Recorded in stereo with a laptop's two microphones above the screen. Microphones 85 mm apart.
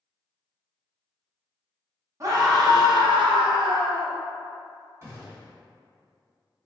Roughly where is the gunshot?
Right.